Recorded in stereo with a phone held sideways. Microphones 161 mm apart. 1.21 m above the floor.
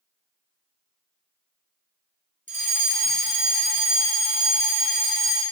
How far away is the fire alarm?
About 1.9 m.